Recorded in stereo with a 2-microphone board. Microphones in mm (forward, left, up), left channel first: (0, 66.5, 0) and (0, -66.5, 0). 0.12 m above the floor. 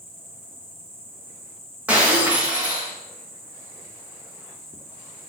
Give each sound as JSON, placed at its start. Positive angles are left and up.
{"t": 0.0, "sound": "an insect", "side_deg": -35, "distance_m": 2.5}
{"t": 1.9, "sound": "breaking glass", "side_deg": -10, "distance_m": 4.0}